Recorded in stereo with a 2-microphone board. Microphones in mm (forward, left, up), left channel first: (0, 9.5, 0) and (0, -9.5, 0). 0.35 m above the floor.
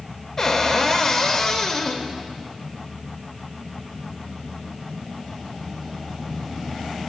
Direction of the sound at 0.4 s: 20° left (ahead or behind).